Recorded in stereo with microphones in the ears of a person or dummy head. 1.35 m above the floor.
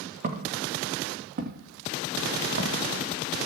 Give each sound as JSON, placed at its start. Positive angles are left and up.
{"t": 0.2, "sound": "footsteps", "side_deg": -55, "distance_m": 5.5}